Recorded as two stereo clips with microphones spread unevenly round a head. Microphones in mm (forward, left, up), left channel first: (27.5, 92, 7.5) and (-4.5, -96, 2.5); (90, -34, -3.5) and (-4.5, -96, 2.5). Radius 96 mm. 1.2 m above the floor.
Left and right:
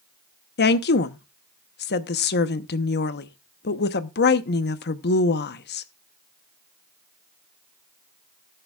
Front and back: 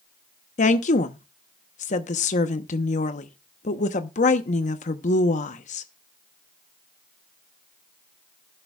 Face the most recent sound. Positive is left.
turn(degrees=45)